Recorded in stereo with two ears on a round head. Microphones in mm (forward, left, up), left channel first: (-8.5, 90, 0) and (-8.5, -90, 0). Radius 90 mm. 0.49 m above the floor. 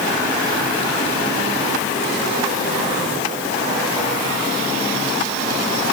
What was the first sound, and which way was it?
Only background noise.